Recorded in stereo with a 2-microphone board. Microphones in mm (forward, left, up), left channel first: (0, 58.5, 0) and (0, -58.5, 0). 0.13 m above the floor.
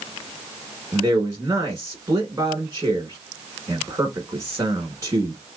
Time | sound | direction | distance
0.9 | a man speaking | 30° right (ahead or behind) | 1.2 m